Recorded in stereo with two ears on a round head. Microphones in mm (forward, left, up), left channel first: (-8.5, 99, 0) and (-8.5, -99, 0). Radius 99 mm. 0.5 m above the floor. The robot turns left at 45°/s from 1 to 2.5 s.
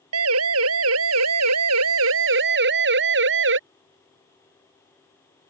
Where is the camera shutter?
I don't hear a camera shutter.